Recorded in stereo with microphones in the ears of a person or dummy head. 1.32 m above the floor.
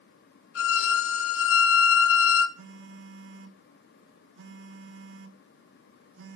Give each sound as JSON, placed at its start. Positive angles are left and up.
{"t": 0.6, "sound": "a violin", "side_deg": 80, "distance_m": 0.8}
{"t": 2.6, "sound": "a phone buzzing", "side_deg": -65, "distance_m": 0.8}